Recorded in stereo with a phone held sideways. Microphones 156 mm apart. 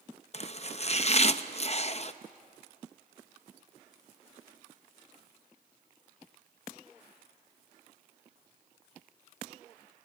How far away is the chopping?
About 0.7 m.